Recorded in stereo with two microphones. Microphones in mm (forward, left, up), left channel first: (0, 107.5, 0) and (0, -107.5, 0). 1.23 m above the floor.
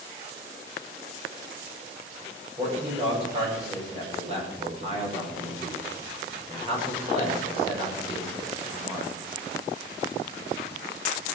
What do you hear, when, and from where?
2.6 s a man speaking: 30° right (ahead or behind), 6.5 m